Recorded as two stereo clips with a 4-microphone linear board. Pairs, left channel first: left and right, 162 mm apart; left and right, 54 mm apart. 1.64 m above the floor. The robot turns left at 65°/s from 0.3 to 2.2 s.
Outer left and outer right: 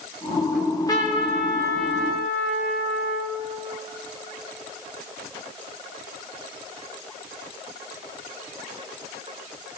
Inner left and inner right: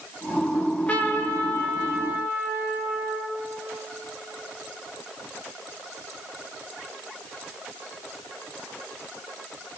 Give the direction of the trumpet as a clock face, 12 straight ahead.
6 o'clock.